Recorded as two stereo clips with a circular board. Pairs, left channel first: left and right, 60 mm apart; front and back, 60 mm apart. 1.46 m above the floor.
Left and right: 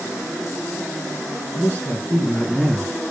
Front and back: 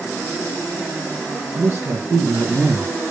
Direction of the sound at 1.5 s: 125° left.